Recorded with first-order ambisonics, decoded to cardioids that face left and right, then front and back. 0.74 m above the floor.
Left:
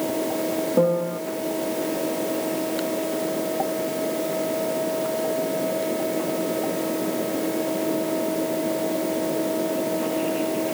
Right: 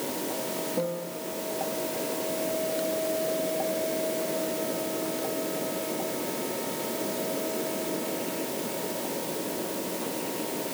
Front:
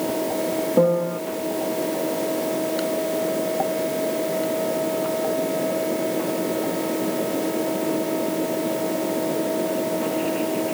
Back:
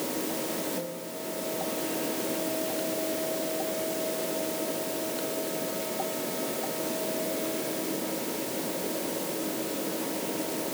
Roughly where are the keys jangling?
I don't hear keys jangling.